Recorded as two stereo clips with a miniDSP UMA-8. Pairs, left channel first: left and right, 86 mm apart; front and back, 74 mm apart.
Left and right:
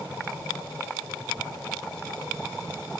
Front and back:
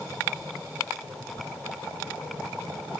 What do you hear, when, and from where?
Only background noise.